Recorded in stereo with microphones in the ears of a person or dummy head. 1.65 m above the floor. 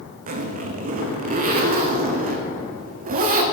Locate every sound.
0.3 s a zipper: 40° right (ahead or behind), 0.6 m